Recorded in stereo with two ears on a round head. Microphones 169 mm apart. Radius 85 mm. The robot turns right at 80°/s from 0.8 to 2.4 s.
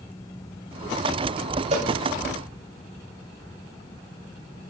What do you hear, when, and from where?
1.7 s a cowbell: 40° right (ahead or behind), 1.2 m